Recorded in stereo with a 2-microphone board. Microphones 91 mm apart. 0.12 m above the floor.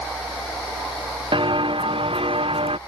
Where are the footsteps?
65° right (ahead or behind); by 2.8 s 80° right.